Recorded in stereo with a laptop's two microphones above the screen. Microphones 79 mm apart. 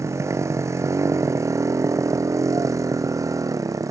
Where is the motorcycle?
40° right (ahead or behind); by 3.9 s 45° right (ahead or behind).